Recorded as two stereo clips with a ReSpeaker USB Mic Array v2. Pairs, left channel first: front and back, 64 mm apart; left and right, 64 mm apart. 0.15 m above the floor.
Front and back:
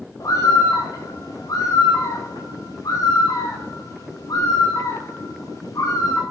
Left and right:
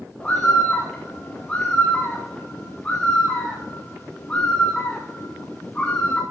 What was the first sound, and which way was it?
A bird, 20° left.